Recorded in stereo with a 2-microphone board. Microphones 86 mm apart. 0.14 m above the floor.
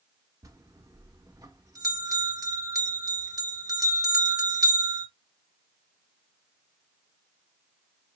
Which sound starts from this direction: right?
A bell, at 0.4 s.